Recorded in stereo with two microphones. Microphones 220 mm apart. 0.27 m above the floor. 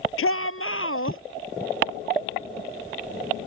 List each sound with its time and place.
0.2 s a shout: 75° left (ahead or behind); by 1.2 s 70° left (ahead or behind)